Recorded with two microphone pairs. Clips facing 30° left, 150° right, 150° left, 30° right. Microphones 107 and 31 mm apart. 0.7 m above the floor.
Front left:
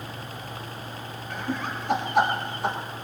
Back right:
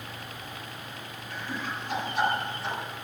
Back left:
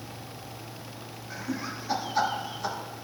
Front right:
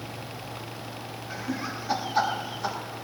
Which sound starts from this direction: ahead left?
Laughter, at 1.3 s.